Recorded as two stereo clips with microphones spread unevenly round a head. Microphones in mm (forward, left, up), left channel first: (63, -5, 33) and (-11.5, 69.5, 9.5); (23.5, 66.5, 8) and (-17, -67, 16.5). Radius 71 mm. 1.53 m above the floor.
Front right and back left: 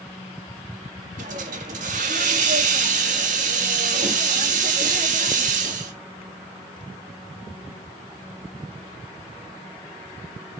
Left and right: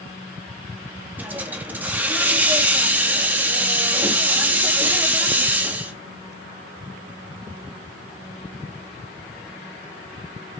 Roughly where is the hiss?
Behind.